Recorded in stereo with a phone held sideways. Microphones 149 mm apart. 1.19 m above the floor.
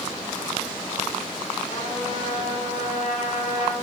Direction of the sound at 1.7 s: 70° left (ahead or behind).